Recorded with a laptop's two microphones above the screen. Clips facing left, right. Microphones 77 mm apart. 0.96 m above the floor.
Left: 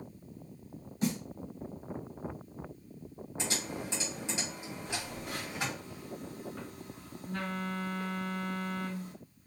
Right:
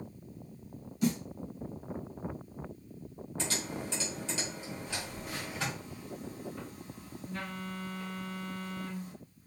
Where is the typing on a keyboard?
15° left (ahead or behind), 1.7 m.